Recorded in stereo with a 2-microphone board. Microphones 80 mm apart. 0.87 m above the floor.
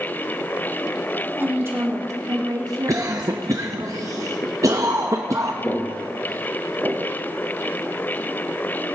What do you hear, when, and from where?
1.4 s a woman speaking: 25° right (ahead or behind), 2.5 m; by 3.9 s 70° right (ahead or behind), 3 m
2.9 s a cough: 40° right (ahead or behind), 0.6 m
5.6 s footsteps: 25° left (ahead or behind), 1.2 m; by 7.1 s 30° right (ahead or behind), 0.9 m